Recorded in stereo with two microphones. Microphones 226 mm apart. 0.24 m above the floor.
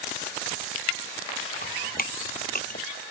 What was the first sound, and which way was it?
Dripping, 40° left (ahead or behind).